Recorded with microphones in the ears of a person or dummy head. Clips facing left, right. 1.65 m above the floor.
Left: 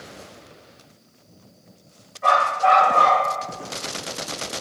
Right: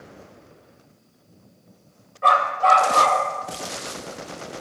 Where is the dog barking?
60° right (ahead or behind), 3 m; by 3.2 s 40° right (ahead or behind), 3 m.